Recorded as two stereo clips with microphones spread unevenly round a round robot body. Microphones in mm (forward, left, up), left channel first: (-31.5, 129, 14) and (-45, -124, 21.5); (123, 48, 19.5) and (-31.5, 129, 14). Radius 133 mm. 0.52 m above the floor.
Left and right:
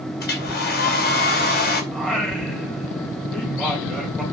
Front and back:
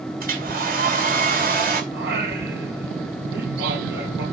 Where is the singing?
175° left, 3 m.